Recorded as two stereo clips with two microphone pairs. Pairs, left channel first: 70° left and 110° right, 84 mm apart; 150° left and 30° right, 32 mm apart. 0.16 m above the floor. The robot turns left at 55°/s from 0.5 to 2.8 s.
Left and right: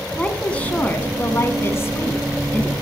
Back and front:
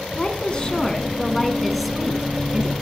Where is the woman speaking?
125° left, 1.2 m; by 2.7 s 5° left, 1.2 m.